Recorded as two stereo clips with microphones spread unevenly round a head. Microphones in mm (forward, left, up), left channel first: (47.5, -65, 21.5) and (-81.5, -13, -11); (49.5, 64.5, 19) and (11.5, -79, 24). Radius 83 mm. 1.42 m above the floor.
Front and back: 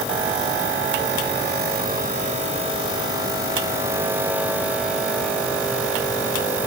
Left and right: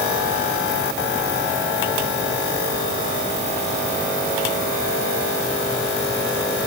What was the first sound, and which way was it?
Only background noise.